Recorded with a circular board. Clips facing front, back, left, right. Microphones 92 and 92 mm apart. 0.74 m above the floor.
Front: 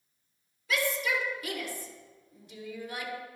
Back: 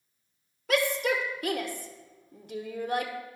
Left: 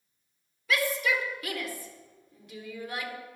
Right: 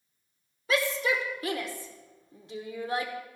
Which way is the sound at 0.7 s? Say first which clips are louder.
Back 4 dB, right 1 dB; 150° right.